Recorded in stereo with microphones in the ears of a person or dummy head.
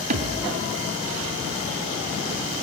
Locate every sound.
0.1 s a thud: 40° right (ahead or behind), 2.5 m